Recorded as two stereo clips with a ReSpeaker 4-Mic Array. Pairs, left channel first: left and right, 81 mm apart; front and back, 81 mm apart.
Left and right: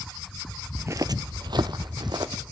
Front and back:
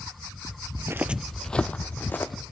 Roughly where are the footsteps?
Behind right.